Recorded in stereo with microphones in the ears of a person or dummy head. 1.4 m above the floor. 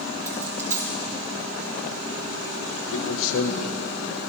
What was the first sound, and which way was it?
A dropped coin, 15° right (ahead or behind).